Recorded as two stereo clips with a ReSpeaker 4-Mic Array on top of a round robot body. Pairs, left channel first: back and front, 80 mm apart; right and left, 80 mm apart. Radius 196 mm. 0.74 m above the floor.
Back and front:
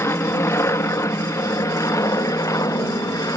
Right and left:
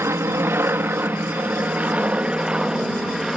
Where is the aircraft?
135° left; by 3.4 s 175° left.